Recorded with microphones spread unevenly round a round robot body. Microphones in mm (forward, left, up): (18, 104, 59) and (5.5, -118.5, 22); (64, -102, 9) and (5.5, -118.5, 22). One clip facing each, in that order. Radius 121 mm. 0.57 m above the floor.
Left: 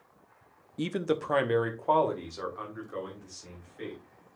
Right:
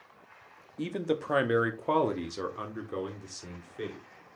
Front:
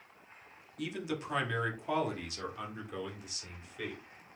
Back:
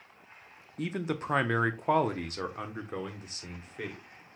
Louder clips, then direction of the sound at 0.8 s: Left 1 dB, back 4 dB; 155° left.